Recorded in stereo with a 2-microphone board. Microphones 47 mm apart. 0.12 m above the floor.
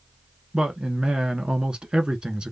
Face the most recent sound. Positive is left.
turn(degrees=-15)  # may be behind; listen again after turning